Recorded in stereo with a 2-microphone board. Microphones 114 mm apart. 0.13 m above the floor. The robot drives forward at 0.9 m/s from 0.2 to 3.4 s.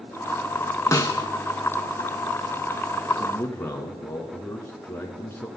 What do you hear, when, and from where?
0.9 s a snare drum: 25° left (ahead or behind), 0.7 m
3.2 s a man speaking: 20° left (ahead or behind), 1.2 m